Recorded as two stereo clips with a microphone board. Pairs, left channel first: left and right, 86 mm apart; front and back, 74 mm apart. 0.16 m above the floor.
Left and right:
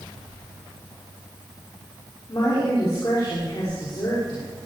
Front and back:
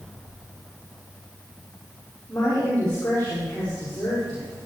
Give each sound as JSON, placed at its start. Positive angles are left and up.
{"t": 2.3, "sound": "a woman speaking", "azimuth_deg": 65, "distance_m": 6.5}